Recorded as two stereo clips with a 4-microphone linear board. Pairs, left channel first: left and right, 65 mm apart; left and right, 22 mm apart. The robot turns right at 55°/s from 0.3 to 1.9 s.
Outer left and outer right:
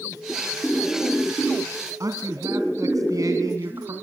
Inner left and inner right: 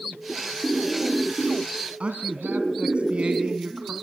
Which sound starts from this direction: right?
A man speaking, at 2.0 s.